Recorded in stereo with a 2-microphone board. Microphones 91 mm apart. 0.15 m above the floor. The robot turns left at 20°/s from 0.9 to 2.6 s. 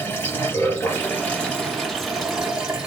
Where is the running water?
25° left, 2.5 m; by 2.9 s 10° right, 2.5 m.